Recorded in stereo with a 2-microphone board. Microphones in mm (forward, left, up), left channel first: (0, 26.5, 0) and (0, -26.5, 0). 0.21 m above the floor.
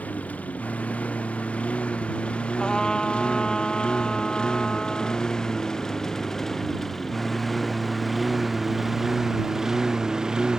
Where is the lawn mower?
25° left (ahead or behind); by 10.6 s 15° right (ahead or behind).